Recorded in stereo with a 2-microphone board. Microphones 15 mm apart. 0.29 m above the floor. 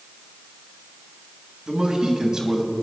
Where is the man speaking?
55° right (ahead or behind), 2.5 m; by 2.7 s 40° right (ahead or behind), 1.9 m.